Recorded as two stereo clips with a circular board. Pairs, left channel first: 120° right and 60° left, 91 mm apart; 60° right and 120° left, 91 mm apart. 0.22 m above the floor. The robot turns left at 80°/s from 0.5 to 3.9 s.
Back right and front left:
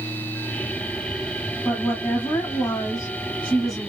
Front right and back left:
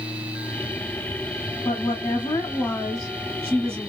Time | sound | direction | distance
1.6 | a woman speaking | 40° right | 1.4 m